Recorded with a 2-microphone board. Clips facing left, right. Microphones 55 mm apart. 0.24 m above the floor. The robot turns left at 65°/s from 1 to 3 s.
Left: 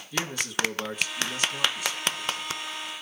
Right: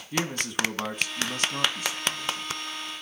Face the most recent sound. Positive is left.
turn(degrees=165)